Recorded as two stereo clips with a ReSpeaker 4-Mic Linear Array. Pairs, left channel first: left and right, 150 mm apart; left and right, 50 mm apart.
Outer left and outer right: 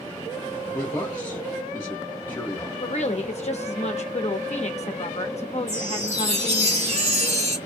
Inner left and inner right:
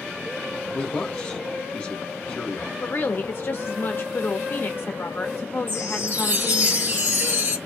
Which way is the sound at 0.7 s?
25° left (ahead or behind).